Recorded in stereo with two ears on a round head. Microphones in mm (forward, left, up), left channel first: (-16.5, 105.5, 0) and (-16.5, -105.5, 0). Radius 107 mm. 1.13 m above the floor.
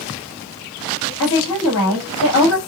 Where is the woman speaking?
60° left (ahead or behind), 1.7 m.